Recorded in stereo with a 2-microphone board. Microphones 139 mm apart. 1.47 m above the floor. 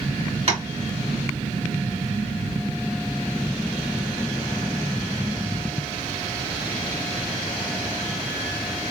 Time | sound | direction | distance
0.5 | tapping | 45° right (ahead or behind) | 1.8 m